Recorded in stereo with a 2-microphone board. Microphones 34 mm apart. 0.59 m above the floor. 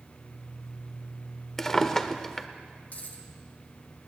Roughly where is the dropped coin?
Left.